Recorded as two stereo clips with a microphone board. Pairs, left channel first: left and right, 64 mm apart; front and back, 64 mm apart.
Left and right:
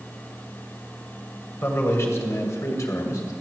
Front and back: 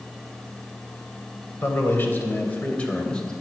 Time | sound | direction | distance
1.6 | a man speaking | 45° left | 2.5 m